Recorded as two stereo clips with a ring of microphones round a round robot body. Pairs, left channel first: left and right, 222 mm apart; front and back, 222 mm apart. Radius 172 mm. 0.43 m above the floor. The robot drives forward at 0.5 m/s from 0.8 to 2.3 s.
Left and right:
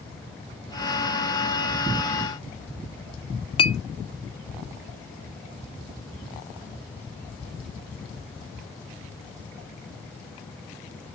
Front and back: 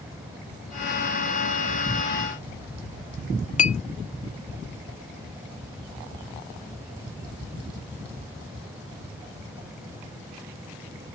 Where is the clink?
35° left, 0.6 m.